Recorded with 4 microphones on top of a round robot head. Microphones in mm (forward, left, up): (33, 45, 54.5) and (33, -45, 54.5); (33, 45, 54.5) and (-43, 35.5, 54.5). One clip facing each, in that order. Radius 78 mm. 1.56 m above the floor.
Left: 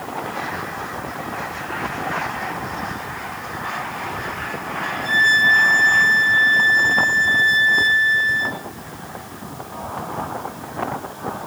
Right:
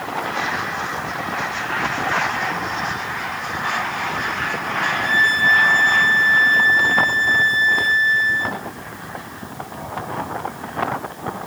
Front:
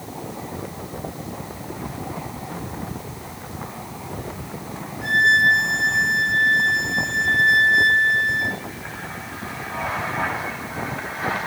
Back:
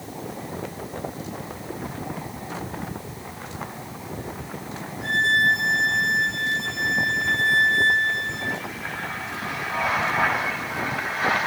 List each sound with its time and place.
5.0 s a violin: 45° right, 3.5 m